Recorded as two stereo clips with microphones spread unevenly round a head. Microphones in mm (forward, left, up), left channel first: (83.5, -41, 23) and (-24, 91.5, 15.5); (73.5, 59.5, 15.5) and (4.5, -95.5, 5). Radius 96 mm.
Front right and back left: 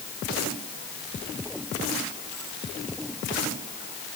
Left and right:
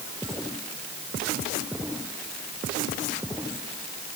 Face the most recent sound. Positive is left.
No sound to turn to.